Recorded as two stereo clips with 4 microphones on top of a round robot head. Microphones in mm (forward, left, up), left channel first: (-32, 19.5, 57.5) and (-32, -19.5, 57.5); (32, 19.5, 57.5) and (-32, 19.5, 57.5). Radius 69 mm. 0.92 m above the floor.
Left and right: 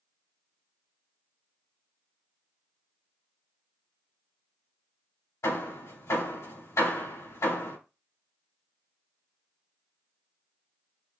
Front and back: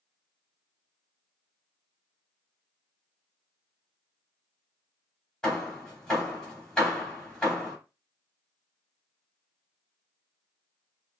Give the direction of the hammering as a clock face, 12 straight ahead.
9 o'clock.